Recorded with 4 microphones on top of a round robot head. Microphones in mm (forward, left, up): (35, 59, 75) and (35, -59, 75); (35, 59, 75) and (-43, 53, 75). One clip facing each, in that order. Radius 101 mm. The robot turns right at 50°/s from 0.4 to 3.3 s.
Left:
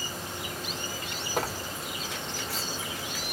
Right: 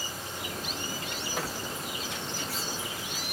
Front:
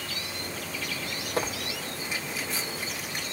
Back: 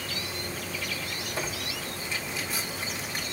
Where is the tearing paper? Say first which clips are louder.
Left 5 dB, front 5 dB; 40° left, 1.7 m; by 3.2 s 135° left, 1.7 m.